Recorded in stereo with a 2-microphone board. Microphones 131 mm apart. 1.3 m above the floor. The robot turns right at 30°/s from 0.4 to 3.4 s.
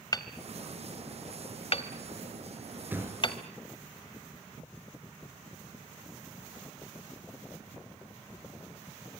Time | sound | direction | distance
0.1 | hammering | 30° left (ahead or behind) | 1.5 m
2.9 | a thud | 15° right (ahead or behind) | 5 m